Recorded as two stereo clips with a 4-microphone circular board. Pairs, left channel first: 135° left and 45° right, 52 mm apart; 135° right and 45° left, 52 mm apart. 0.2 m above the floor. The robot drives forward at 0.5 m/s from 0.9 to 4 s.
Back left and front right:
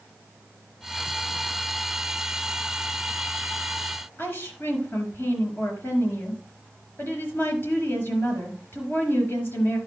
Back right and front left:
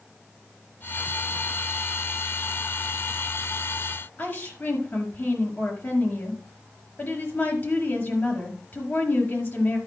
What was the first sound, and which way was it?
A woman speaking, straight behind.